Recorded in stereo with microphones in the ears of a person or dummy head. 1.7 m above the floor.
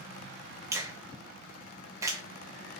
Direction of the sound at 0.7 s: 15° right (ahead or behind).